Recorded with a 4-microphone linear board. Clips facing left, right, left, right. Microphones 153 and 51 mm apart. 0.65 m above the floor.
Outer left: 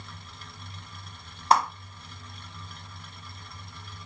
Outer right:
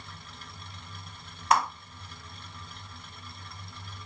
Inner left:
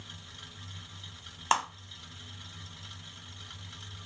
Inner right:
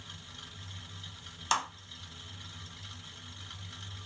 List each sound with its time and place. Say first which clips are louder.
1.5 s a clap: outer left 3 dB, inner left 3 dB; 35° left (ahead or behind), 1.3 m